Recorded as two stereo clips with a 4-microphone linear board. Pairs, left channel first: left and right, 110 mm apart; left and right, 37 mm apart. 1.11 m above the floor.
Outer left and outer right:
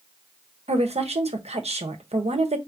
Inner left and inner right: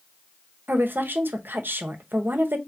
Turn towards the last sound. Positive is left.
turn(degrees=-70)  # may be behind; listen again after turning